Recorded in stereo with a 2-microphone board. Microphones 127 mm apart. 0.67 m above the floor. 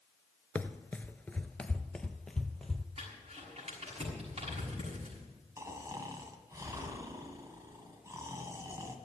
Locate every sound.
0.6 s running footsteps: 15° left (ahead or behind), 0.6 m; by 2.9 s 5° left (ahead or behind), 1.3 m
3.0 s crumpling: 50° right (ahead or behind), 6.5 m
5.6 s snoring: 25° right (ahead or behind), 1.9 m